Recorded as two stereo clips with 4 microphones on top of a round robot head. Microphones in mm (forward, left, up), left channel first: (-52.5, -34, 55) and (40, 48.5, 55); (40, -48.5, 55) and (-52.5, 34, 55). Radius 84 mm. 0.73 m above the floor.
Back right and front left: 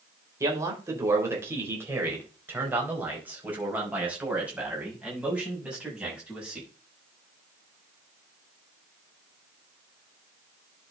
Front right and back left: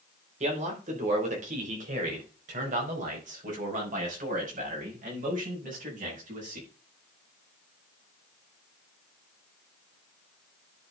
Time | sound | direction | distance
0.4 | a man speaking | 105° left | 3.5 m